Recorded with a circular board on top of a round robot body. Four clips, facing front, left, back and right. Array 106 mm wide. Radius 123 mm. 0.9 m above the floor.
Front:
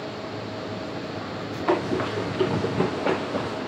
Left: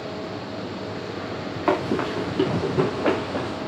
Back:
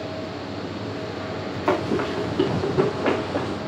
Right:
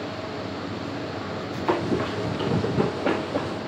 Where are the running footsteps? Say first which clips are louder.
Left 2 dB, back 1 dB; 115° left, 6.5 m; by 3.6 s 135° left, 7 m.